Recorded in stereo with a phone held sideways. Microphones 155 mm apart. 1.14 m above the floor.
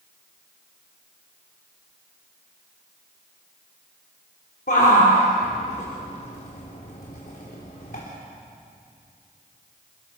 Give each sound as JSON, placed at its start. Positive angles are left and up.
{"t": 4.7, "sound": "a shout", "side_deg": 70, "distance_m": 3.0}